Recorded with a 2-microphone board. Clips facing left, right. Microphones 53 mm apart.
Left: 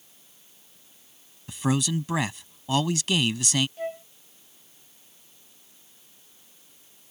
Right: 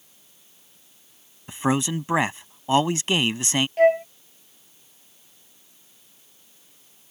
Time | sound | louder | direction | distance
1.5 | a man speaking | right 3 dB | 30° right (ahead or behind) | ?
3.8 | a flute | right 16 dB | 65° right (ahead or behind) | ?